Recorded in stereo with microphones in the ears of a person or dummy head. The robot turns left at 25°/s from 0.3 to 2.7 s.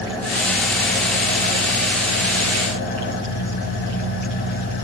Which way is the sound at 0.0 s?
175° left.